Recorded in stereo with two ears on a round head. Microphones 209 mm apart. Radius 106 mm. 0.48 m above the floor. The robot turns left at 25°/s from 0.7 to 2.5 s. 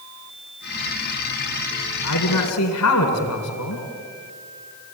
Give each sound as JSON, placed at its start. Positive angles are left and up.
{"t": 2.0, "sound": "a man speaking", "side_deg": 80, "distance_m": 4.0}